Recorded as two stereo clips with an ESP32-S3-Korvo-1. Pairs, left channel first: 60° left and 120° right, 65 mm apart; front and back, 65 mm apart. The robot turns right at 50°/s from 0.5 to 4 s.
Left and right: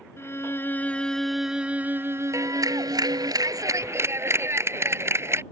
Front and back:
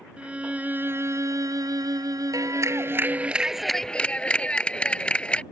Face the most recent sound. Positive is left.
turn(degrees=-75)